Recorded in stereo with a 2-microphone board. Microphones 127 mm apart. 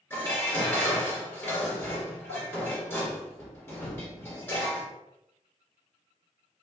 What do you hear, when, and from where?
0.1 s dishes clattering: 20° left (ahead or behind), 2.0 m